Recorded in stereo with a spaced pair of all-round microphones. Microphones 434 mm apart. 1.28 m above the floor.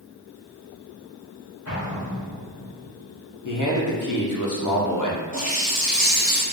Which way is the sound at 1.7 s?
35° left (ahead or behind).